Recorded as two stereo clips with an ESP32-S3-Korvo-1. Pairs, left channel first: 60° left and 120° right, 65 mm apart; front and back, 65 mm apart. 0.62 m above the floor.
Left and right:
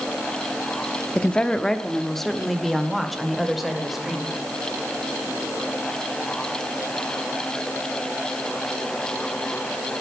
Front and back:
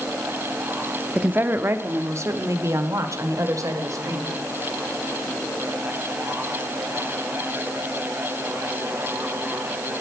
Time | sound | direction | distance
1.1 | a woman speaking | 125° left | 0.7 m